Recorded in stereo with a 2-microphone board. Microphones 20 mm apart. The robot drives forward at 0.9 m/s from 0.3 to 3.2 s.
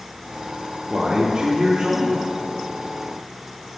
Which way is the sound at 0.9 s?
65° right (ahead or behind).